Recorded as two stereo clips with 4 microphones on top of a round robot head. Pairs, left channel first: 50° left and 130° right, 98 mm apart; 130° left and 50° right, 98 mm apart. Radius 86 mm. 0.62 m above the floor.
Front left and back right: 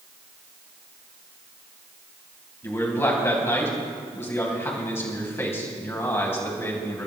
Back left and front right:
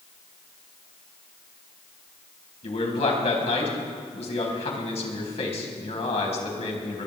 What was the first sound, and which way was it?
A man speaking, 115° left.